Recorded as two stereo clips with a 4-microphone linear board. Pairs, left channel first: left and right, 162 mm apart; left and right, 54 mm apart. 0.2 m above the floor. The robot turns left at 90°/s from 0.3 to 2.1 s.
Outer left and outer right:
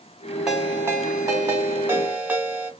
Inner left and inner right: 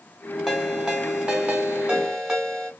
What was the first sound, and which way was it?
A ringtone, centre (ahead or behind).